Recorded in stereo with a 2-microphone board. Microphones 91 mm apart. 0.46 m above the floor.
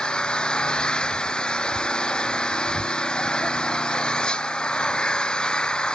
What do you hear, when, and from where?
0.0 s an engine running: 10° left (ahead or behind)